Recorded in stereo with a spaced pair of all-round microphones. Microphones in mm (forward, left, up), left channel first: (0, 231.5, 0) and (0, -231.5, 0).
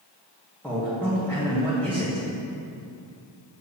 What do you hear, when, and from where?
0.6 s a man speaking: 5° left (ahead or behind), 2 m